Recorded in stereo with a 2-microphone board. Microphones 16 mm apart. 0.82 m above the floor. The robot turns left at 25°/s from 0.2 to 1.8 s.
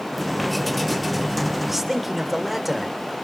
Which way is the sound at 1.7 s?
15° right (ahead or behind).